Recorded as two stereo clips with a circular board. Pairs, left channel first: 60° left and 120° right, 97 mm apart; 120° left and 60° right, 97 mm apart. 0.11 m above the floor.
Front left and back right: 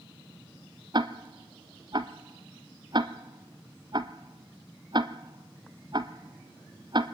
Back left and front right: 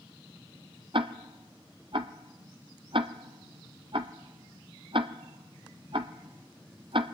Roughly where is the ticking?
Right.